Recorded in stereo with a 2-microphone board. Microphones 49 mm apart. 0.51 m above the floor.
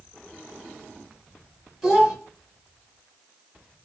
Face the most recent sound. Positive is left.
turn(degrees=0)  # may be behind; listen again after turning